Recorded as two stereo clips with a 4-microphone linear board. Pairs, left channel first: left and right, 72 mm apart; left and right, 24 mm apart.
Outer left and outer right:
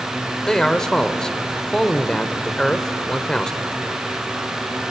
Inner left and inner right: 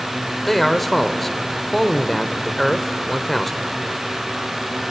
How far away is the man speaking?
About 1.1 m.